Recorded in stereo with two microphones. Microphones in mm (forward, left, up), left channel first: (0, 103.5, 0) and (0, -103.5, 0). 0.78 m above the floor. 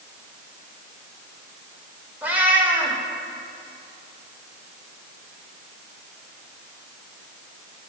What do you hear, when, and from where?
2.2 s a cat meowing: 10° right (ahead or behind), 1.4 m